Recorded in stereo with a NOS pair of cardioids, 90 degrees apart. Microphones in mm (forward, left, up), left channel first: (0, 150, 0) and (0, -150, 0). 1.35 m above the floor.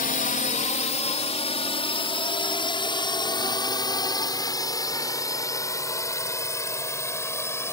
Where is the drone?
30° left; by 7.7 s 10° left.